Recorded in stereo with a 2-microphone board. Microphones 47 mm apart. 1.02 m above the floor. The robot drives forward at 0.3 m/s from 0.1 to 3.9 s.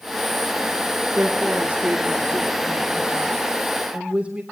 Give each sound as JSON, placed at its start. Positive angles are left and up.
{"t": 1.1, "sound": "a woman speaking", "side_deg": -40, "distance_m": 2.0}